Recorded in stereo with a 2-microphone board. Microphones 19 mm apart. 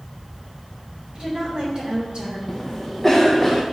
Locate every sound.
1.1 s a woman speaking: 45° right (ahead or behind), 3.5 m; by 2.4 s 55° right (ahead or behind), 2.5 m
2.5 s a cough: centre (ahead or behind), 0.6 m